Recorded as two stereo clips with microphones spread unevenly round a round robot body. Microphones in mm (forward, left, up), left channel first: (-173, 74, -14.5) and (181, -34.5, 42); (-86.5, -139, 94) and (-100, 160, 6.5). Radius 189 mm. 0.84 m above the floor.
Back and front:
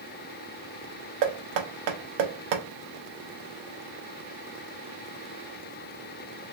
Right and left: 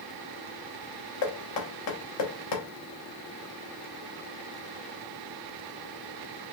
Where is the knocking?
45° right, 0.8 m.